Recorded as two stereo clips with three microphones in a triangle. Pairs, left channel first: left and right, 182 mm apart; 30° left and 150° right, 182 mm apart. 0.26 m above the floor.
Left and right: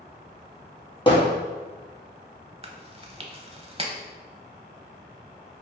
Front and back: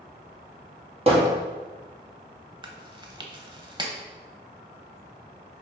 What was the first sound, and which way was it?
Hammering, 155° left.